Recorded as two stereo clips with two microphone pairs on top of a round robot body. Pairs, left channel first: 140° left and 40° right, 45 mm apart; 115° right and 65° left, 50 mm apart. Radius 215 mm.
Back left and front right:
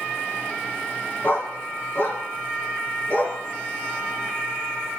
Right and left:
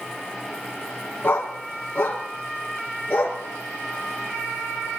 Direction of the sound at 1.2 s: 175° right.